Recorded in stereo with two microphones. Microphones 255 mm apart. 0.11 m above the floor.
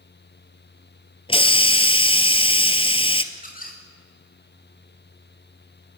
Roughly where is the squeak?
Left.